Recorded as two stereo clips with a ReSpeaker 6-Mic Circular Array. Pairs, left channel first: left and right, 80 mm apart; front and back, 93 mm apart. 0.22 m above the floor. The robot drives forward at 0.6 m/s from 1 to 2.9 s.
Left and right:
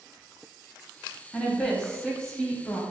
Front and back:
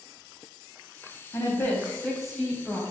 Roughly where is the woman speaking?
Ahead.